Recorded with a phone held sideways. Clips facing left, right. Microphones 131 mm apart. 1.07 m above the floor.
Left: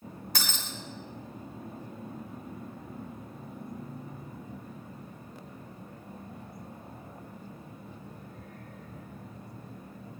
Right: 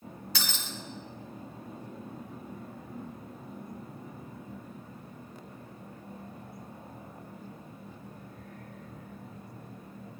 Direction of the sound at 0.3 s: 45° left (ahead or behind).